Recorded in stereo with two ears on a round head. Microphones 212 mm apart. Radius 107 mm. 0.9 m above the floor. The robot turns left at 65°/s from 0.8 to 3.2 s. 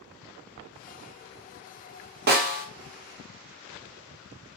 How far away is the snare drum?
About 0.6 m.